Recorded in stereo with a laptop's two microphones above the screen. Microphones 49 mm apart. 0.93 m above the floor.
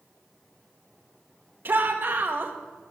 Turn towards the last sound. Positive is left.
turn(degrees=-45)  # may be behind; listen again after turning